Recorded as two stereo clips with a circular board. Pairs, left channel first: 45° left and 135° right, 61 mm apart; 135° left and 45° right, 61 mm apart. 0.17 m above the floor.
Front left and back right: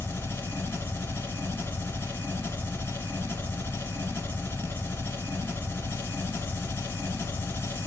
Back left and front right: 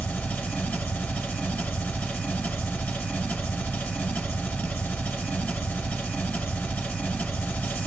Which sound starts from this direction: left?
An engine running, at 0.0 s.